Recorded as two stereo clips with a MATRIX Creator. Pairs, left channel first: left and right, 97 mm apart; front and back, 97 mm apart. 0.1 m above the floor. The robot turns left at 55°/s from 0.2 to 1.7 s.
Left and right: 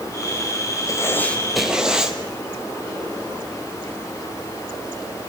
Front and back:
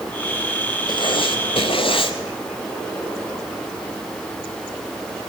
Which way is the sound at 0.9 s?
35° left.